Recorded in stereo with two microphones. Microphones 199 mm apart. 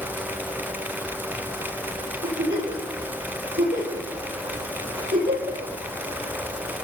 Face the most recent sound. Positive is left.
turn(degrees=-70)  # may be behind; listen again after turning